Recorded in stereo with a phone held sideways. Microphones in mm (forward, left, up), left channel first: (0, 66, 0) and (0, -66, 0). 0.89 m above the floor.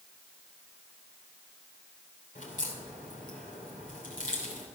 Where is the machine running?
No machine running in this recording.